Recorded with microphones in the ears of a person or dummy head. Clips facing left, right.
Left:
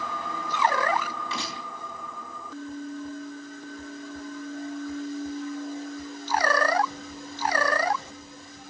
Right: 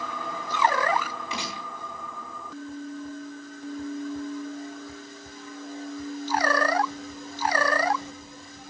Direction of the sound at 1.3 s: 20° right (ahead or behind).